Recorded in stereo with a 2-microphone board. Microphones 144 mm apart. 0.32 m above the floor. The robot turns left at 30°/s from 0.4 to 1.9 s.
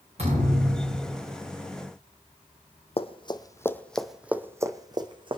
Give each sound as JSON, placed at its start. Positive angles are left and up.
{"t": 0.2, "sound": "a thud", "side_deg": -50, "distance_m": 10.0}
{"t": 3.0, "sound": "running footsteps", "side_deg": 45, "distance_m": 1.1}